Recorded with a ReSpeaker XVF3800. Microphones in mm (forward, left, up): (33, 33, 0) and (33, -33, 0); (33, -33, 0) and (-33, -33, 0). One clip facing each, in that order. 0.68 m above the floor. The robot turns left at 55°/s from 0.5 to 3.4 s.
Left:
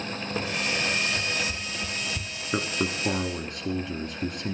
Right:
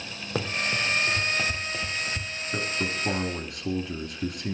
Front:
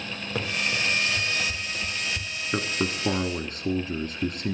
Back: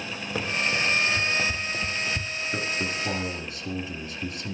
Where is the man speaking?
60° left, 1.5 m; by 4.5 s 10° left, 1.5 m.